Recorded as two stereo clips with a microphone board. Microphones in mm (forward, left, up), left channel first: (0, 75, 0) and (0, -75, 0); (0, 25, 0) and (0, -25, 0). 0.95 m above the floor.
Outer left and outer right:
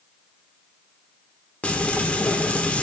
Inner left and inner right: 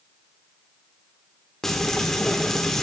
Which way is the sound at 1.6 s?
10° left (ahead or behind).